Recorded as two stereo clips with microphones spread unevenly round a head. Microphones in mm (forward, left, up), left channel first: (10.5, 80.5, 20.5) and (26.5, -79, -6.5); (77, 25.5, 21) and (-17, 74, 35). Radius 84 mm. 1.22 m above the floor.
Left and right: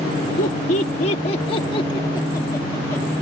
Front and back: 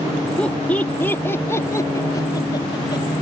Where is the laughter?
55° left; by 3.2 s 15° left.